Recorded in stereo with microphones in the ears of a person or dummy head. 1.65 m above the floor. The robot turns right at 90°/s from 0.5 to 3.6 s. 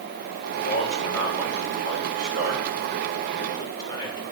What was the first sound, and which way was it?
A man speaking, 70° left (ahead or behind).